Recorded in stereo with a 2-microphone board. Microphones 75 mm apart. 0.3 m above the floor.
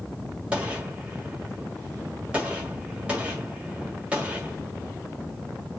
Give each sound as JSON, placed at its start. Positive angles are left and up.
{"t": 0.5, "sound": "a gunshot", "side_deg": -15, "distance_m": 1.3}